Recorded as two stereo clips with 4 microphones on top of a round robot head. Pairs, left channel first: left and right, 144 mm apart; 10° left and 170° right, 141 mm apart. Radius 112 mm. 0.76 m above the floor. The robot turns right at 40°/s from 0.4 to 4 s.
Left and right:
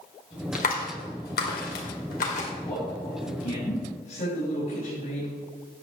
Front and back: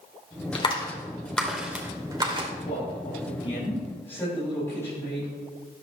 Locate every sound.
0.6 s a clap: 60° left, 2.5 m; by 2.5 s 135° left, 2.5 m
2.6 s a man speaking: 25° left, 4.5 m; by 5.3 s 80° left, 4.5 m